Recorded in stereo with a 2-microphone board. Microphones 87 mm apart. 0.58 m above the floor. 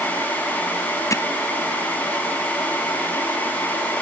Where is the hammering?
35° left (ahead or behind).